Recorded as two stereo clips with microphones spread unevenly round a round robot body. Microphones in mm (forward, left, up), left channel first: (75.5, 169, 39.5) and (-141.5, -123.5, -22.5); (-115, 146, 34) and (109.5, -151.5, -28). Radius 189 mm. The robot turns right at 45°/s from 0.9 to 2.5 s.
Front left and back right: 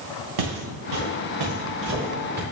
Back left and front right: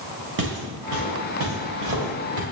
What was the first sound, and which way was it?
Footsteps, 115° right.